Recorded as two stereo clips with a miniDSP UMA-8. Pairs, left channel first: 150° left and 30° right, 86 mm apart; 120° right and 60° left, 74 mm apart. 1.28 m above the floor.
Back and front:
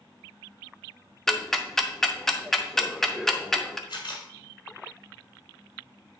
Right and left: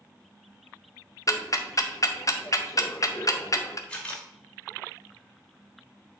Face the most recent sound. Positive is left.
turn(degrees=165)